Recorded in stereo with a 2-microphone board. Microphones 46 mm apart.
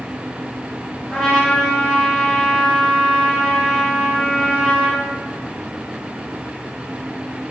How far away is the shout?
No shout in this recording.